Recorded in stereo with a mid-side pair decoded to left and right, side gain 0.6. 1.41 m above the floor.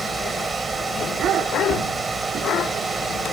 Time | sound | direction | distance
0.0 | a fan | 25° right | 2 m
1.7 | a cupboard door | 50° right | 2.5 m